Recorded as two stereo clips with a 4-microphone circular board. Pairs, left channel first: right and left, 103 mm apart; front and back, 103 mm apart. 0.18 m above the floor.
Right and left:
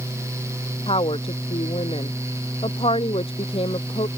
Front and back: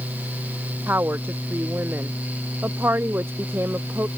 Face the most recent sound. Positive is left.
turn(degrees=-110)